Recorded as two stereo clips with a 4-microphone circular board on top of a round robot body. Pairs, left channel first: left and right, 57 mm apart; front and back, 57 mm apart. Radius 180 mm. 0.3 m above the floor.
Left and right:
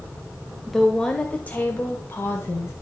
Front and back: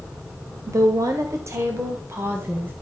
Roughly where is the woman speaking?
Behind.